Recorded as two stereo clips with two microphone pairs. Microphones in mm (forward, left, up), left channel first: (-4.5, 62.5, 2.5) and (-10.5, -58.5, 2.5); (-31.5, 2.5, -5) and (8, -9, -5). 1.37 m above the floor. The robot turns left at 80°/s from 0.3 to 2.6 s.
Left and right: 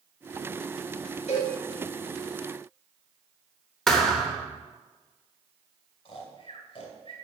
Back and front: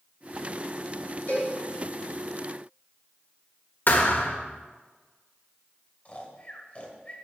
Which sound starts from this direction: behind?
A thud, at 3.9 s.